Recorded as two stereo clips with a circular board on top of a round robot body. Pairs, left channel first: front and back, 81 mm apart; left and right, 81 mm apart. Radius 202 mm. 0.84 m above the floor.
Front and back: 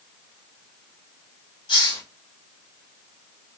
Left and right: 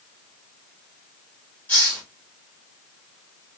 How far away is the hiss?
About 1.9 m.